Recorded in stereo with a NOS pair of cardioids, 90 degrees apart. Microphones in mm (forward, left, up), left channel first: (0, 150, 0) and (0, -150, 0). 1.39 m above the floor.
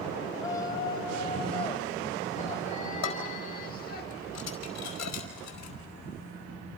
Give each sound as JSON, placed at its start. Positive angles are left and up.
{"t": 0.3, "sound": "a shout", "azimuth_deg": 10, "distance_m": 5.5}
{"t": 3.0, "sound": "dishes clattering", "azimuth_deg": 60, "distance_m": 4.5}